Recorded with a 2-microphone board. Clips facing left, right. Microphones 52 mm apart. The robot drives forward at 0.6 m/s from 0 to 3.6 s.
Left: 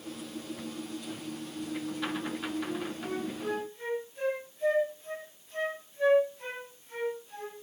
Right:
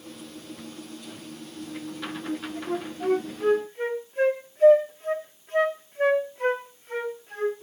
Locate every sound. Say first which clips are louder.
2.3 s a flute: right 4 dB; 65° right (ahead or behind), 3 m; by 7.6 s 50° right (ahead or behind), 3.5 m